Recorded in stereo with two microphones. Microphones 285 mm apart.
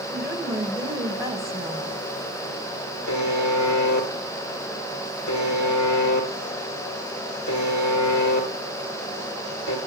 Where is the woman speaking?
10° right (ahead or behind), 4 m.